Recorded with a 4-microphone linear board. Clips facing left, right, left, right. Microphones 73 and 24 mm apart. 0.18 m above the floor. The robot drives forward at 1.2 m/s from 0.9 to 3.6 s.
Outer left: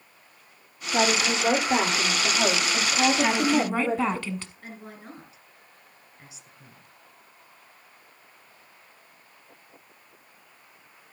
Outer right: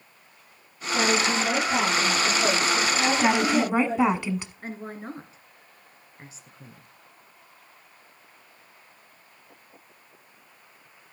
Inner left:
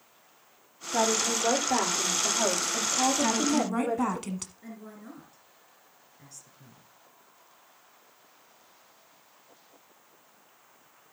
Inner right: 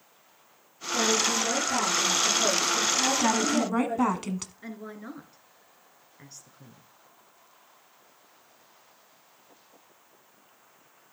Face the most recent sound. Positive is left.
turn(degrees=-35)  # may be behind; listen again after turning